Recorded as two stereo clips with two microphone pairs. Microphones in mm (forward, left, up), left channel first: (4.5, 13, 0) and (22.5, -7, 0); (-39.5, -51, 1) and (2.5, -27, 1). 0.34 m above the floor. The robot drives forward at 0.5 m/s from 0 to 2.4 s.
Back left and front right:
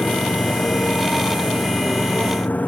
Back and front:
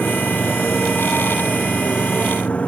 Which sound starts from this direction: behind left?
A motorcycle, at 0.0 s.